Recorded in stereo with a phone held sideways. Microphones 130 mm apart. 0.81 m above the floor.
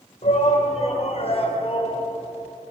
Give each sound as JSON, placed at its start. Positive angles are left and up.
{"t": 0.2, "sound": "a shout", "side_deg": 65, "distance_m": 4.0}